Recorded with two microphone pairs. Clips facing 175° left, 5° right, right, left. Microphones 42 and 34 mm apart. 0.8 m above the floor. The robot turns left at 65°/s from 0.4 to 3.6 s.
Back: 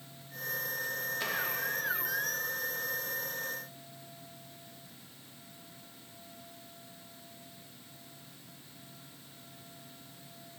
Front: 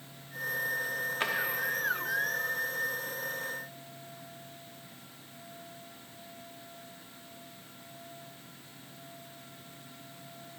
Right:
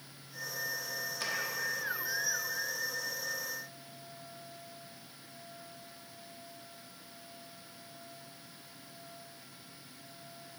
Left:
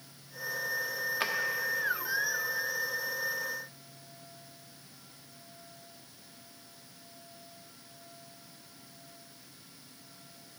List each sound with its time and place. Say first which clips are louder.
1.2 s a drawer: front 5 dB, left 4 dB; 45° left, 0.8 m; by 1.3 s 35° left, 0.8 m